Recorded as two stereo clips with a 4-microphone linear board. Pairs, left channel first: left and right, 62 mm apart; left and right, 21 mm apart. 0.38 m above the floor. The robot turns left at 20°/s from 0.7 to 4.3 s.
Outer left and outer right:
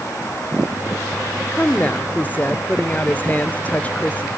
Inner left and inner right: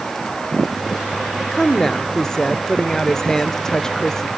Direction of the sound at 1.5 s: 25° left (ahead or behind).